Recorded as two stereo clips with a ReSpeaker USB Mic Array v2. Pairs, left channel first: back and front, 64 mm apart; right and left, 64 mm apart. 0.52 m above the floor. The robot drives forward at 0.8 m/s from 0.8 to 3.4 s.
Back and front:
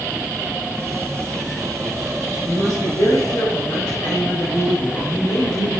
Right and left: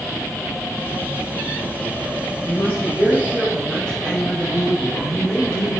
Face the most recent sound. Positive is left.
turn(degrees=-160)